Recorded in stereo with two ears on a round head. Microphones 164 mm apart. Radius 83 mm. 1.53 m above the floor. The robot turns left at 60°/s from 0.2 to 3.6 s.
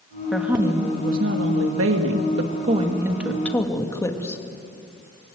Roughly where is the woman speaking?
Ahead.